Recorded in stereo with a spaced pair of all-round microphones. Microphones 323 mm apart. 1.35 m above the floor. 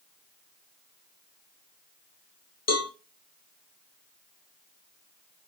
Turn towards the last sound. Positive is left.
turn(degrees=50)  # may be behind; listen again after turning